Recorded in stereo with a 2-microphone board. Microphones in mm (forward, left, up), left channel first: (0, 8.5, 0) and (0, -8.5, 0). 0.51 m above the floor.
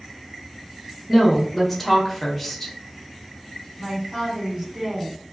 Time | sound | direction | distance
1.1 | a woman speaking | 10° left (ahead or behind) | 0.9 m
3.8 | a man speaking | 30° right (ahead or behind) | 1.5 m